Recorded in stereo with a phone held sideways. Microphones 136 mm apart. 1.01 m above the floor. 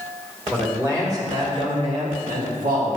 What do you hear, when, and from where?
0.5 s a man speaking: 15° right (ahead or behind), 2.5 m; by 3.0 s 80° right, 1.9 m